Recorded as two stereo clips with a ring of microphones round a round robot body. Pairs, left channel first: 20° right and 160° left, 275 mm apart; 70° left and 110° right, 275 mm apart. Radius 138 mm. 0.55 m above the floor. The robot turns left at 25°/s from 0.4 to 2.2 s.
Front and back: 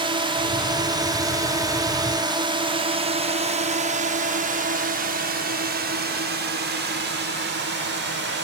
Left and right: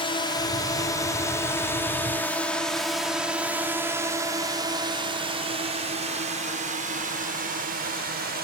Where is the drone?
110° left; by 8.4 s 160° right.